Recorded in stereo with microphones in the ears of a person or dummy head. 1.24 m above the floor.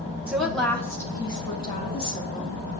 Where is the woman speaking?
10° right (ahead or behind), 1.0 m; by 2.6 s 30° left (ahead or behind), 2.5 m.